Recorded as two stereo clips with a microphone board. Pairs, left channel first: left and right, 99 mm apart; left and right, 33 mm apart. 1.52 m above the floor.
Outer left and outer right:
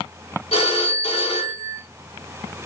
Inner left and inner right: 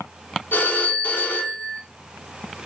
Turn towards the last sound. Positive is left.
turn(degrees=80)